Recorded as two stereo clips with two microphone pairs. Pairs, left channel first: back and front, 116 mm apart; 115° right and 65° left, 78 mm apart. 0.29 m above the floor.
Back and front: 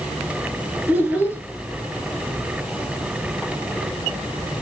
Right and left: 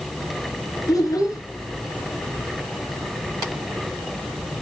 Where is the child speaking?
75° right, 3 m.